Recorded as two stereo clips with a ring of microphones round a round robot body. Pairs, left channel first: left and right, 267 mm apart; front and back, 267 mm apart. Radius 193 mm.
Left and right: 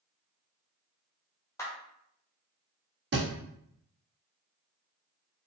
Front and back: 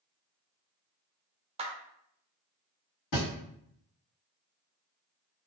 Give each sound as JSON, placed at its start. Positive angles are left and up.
{"t": 1.6, "sound": "a clap", "azimuth_deg": 155, "distance_m": 0.6}
{"t": 3.1, "sound": "a thud", "azimuth_deg": -40, "distance_m": 1.6}